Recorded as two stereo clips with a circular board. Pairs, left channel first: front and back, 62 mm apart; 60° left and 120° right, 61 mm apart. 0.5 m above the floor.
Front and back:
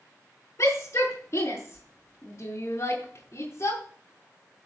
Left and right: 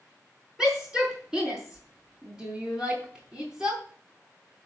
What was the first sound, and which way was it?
A shout, 45° right.